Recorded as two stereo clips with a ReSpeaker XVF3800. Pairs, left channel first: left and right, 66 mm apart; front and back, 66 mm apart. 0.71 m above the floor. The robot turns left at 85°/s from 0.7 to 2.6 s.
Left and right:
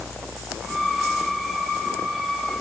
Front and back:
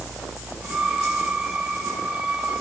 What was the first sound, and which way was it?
Only background noise.